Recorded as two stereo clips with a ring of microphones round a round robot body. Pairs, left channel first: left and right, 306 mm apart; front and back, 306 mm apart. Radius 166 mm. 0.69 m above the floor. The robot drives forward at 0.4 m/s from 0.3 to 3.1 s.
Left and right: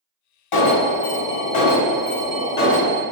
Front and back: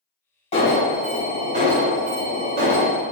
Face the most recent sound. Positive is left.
turn(degrees=145)